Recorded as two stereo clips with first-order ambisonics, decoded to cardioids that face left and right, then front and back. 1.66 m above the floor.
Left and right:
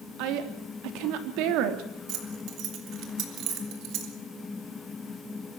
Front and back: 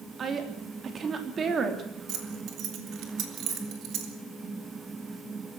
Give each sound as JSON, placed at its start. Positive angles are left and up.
{"t": 0.2, "sound": "a woman speaking", "azimuth_deg": -115, "distance_m": 3.0}
{"t": 2.1, "sound": "keys jangling", "azimuth_deg": -135, "distance_m": 3.5}